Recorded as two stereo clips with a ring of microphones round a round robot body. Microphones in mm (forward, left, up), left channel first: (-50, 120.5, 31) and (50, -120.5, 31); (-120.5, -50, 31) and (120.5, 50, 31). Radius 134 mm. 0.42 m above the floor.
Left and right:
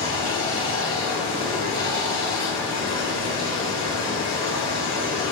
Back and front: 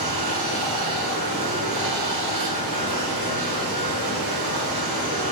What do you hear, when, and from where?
0.0 s running water: 45° left, 1.8 m